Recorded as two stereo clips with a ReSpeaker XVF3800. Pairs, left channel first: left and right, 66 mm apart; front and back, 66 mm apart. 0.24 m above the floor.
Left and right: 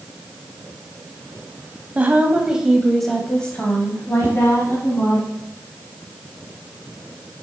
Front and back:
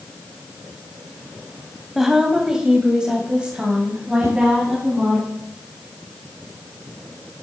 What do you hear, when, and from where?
1.9 s a woman speaking: 100° right, 1.3 m; by 5.2 s 115° left, 2 m
4.2 s a whoosh: 145° right, 2.5 m